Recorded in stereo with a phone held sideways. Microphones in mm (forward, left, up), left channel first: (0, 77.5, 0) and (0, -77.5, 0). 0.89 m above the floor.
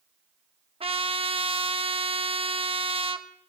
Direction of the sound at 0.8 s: 35° right (ahead or behind).